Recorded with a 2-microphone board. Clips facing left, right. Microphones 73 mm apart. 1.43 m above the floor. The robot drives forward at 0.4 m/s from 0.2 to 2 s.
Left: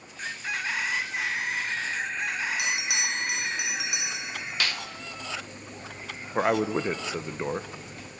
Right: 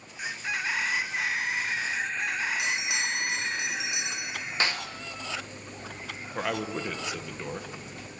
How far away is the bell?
About 4.5 m.